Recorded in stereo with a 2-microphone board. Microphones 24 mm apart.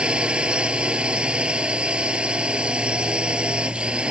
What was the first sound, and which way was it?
A drone, 40° right (ahead or behind).